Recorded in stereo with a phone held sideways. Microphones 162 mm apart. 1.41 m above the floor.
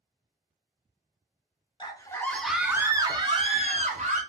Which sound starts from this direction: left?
A scream, at 1.8 s.